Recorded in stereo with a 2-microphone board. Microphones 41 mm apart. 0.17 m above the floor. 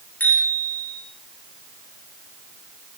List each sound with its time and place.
0.2 s a bicycle bell: 40° left (ahead or behind), 9.5 m